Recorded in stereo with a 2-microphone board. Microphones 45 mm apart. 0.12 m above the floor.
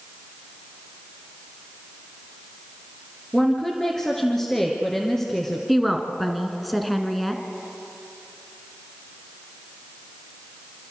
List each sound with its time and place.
3.3 s a woman speaking: 10° left (ahead or behind), 2.5 m
5.7 s a woman speaking: centre (ahead or behind), 1.7 m